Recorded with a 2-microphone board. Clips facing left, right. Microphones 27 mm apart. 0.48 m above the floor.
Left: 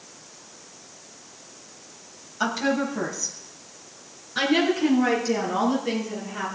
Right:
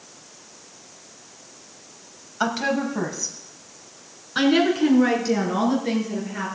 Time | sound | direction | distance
2.4 | a woman speaking | 15° right (ahead or behind) | 2.5 m